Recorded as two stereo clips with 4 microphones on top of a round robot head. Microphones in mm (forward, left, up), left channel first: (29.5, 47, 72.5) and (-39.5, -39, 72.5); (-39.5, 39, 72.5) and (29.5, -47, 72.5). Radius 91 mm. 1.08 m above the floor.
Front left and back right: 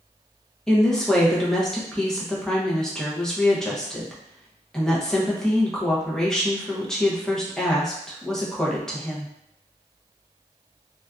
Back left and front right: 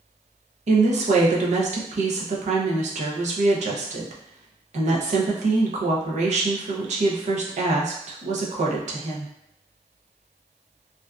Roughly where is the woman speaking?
Ahead right.